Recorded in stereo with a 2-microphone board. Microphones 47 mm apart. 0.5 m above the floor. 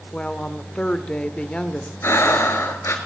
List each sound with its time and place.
0.1 s a woman speaking: 25° left (ahead or behind), 1.2 m
2.0 s breathing: 70° left (ahead or behind), 1.8 m